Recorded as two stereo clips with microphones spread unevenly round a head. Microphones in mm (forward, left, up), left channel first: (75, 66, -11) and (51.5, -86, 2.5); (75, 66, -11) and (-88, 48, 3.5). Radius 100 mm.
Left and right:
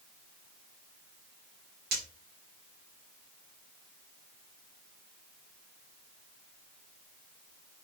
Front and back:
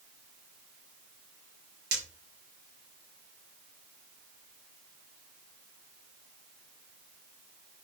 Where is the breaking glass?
140° right, 5 m.